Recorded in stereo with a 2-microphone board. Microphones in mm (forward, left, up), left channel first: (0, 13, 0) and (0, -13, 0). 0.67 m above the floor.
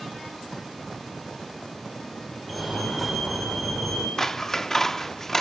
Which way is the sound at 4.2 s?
15° left (ahead or behind).